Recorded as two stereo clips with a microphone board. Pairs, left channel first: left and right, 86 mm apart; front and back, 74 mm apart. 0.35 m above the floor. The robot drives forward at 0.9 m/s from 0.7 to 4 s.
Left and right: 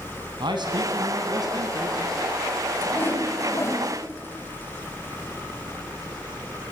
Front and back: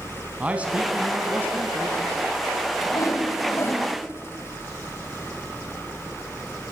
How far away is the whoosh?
About 2.5 m.